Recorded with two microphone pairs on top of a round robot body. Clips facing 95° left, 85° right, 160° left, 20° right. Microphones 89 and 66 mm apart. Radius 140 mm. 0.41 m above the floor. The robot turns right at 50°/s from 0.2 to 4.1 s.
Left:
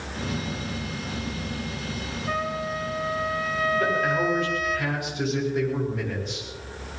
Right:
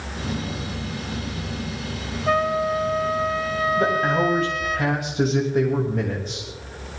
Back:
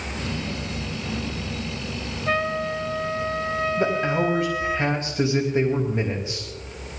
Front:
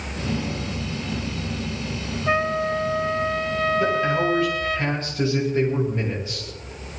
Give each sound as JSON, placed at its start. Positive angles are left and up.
{"t": 2.3, "sound": "a trumpet", "azimuth_deg": -90, "distance_m": 1.3}
{"t": 3.8, "sound": "a man speaking", "azimuth_deg": -150, "distance_m": 2.5}